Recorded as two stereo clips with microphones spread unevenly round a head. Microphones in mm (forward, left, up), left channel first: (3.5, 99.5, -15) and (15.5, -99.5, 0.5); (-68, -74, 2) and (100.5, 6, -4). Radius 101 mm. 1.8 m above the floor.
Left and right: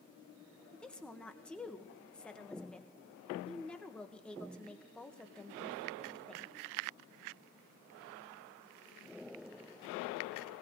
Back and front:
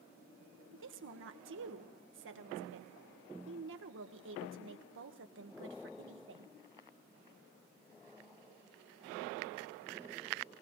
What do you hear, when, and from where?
0.7 s a woman speaking: 10° left, 1.6 m